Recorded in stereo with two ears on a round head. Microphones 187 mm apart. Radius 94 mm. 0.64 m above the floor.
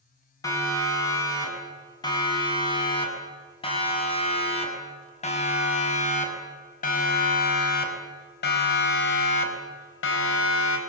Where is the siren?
15° left (ahead or behind), 6.5 m; by 10.8 s 70° left (ahead or behind), 3.5 m.